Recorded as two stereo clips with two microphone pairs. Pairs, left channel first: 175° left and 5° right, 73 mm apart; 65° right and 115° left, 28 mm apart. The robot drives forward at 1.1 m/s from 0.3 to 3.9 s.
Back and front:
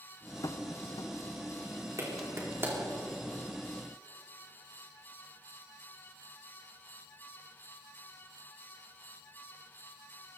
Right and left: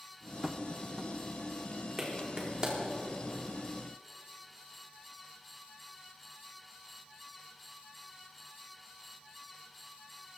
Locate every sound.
0.4 s tapping: straight behind, 0.8 m
2.0 s a clap: 40° left, 3.5 m; by 2.8 s 55° left, 3 m